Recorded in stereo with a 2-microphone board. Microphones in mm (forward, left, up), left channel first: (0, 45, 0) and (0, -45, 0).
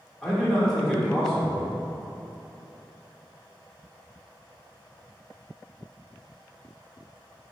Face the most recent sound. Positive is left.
turn(degrees=5)  # may be behind; listen again after turning